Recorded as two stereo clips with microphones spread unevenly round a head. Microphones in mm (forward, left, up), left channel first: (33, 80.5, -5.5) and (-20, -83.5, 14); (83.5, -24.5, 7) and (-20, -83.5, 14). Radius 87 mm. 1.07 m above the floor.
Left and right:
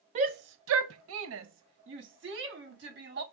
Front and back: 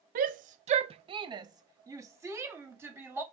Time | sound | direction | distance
0.1 | a shout | 165° right | 0.6 m